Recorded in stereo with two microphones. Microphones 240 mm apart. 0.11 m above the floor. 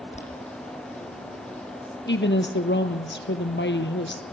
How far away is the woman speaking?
About 2.5 m.